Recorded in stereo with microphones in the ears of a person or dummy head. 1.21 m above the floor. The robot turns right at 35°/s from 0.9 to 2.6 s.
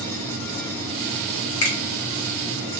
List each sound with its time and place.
1.6 s a finger snap: 80° left, 1.5 m